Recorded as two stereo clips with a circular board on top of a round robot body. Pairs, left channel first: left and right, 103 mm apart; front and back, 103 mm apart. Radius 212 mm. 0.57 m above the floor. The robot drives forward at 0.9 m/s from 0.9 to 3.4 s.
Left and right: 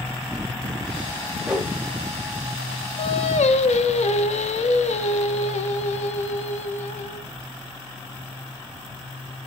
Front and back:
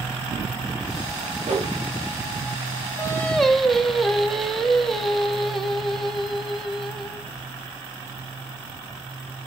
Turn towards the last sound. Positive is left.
turn(degrees=90)